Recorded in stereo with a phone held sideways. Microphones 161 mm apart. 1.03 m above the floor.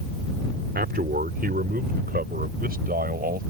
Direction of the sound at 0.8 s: 75° right (ahead or behind).